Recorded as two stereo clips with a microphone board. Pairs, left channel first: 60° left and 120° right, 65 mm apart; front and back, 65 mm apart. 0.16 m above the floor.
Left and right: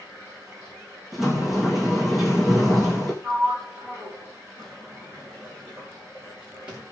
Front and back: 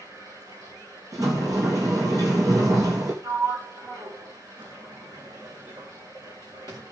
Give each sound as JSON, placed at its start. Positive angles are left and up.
{"t": 0.0, "sound": "running water", "azimuth_deg": -170, "distance_m": 8.0}
{"t": 1.1, "sound": "a sliding door", "azimuth_deg": 155, "distance_m": 3.0}
{"t": 3.2, "sound": "a sliding door", "azimuth_deg": 170, "distance_m": 4.5}